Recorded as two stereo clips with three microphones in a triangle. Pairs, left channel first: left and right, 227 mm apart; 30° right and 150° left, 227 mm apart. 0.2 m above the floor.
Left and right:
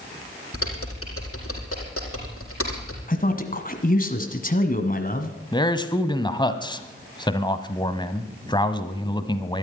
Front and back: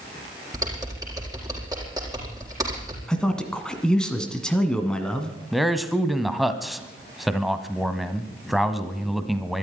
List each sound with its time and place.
0.5 s typing on a keyboard: 75° left, 4.5 m
3.1 s a man speaking: 55° left, 1.4 m
5.5 s a man speaking: 60° left, 1.1 m